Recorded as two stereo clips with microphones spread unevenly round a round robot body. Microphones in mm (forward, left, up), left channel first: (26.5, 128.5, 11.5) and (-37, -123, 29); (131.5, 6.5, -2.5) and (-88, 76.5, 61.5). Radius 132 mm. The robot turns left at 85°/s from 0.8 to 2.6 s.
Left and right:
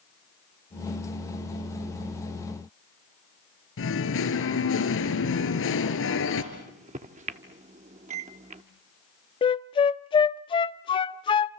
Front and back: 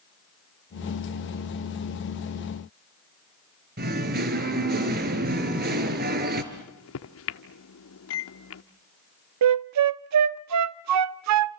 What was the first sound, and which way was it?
Singing, 120° left.